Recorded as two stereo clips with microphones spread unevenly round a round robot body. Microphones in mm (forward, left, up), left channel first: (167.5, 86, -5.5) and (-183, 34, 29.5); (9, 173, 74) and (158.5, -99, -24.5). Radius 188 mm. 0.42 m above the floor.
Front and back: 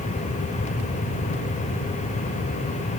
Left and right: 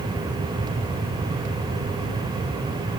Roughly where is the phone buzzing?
No phone buzzing in this recording.